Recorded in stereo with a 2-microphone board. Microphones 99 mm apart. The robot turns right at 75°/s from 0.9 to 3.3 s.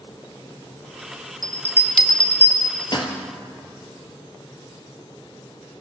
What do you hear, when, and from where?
1.4 s a bell: 45° right (ahead or behind), 1.3 m; by 3.1 s 60° left (ahead or behind), 1.3 m